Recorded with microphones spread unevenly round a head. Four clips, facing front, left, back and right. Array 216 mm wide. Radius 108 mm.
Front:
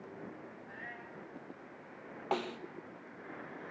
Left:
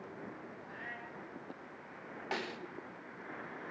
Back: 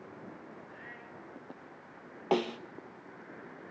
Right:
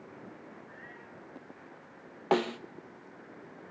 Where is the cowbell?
No cowbell in this recording.